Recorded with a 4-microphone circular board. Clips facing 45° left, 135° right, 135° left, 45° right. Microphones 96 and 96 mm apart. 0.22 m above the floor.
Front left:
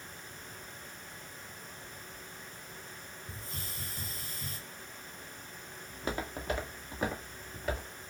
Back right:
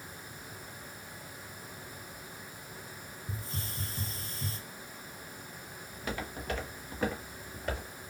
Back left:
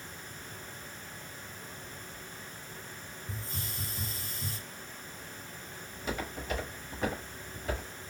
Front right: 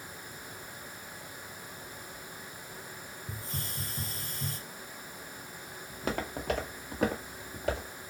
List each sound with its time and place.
3.3 s a hiss: 75° right, 2 m
5.9 s footsteps: 15° right, 1.4 m; by 7.9 s 40° right, 2 m